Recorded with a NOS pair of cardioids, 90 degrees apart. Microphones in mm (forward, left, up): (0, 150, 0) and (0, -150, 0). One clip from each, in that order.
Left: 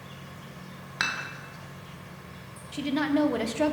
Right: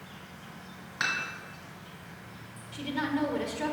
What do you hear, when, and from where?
0.0 s an insect: 45° left, 1.6 m
1.0 s dishes clattering: 40° left, 1.9 m
2.7 s a woman speaking: 50° left, 1.0 m